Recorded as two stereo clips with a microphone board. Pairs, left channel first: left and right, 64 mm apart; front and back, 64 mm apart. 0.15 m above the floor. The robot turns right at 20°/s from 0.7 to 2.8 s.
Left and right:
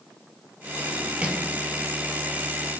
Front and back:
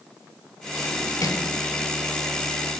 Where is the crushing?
25° right, 0.6 m; by 1.4 s 20° right, 0.6 m.